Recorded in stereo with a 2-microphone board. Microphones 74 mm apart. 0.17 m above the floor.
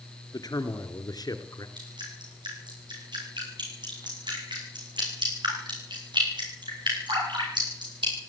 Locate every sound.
0.3 s a man speaking: 55° left (ahead or behind), 2.5 m; by 1.7 s 60° left (ahead or behind), 2 m
1.8 s dripping: 80° right, 9.5 m